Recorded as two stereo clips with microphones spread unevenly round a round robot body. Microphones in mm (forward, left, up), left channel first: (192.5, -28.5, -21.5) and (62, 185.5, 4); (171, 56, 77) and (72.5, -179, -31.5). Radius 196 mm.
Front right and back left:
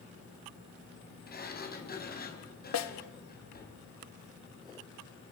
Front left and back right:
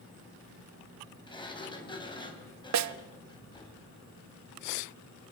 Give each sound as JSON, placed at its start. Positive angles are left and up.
{"t": 1.3, "sound": "a sliding door", "azimuth_deg": -5, "distance_m": 5.0}
{"t": 2.7, "sound": "a snare drum", "azimuth_deg": -110, "distance_m": 0.7}